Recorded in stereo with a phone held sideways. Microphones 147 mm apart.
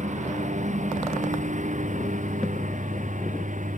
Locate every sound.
0.0 s a lawn mower: 55° right (ahead or behind); by 3.8 s 60° right (ahead or behind)